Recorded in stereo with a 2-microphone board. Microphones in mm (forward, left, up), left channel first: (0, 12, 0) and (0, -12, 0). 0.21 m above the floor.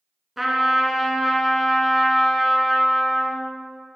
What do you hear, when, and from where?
0.4 s a trumpet: 5° right (ahead or behind), 1.4 m